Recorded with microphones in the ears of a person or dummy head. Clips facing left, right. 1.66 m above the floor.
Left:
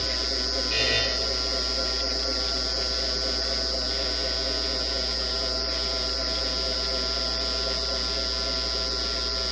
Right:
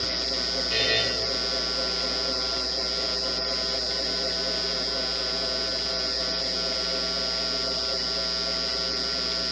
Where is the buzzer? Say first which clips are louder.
Right 2 dB; 10° right (ahead or behind), 9 m.